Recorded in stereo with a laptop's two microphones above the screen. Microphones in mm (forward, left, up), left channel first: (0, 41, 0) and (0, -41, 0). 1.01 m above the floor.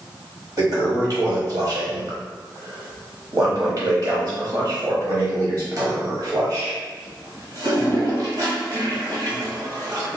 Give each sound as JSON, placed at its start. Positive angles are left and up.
{"t": 0.6, "sound": "a toilet flushing", "side_deg": -45, "distance_m": 1.1}